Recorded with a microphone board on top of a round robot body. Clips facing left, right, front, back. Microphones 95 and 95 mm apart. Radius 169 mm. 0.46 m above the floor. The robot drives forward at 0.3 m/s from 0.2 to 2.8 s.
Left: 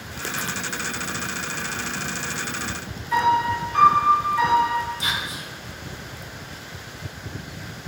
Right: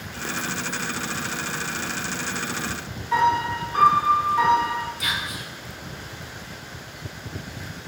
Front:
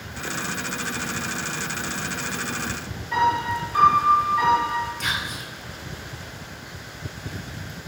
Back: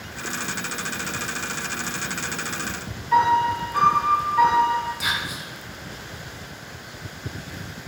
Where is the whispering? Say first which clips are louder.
Left 1 dB, back 1 dB; 105° left, 0.8 m.